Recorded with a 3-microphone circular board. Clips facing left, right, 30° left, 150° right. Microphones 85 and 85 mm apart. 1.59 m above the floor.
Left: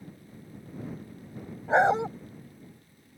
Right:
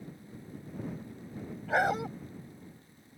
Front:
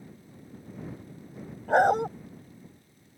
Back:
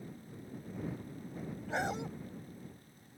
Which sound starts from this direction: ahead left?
A dog barking, at 1.7 s.